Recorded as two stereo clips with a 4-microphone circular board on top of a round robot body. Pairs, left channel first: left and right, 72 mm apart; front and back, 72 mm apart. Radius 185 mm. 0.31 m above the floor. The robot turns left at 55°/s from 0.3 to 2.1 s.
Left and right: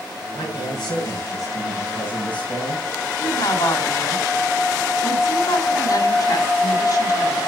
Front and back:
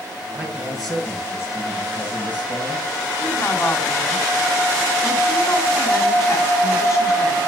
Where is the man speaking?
115° left, 9 m; by 2.9 s 20° left, 9 m.